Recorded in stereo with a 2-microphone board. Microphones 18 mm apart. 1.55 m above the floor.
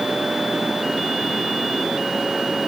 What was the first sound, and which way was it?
Only background noise.